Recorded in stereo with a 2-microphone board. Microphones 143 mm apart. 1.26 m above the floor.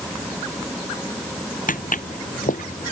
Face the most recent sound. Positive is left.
turn(degrees=65)  # may be behind; listen again after turning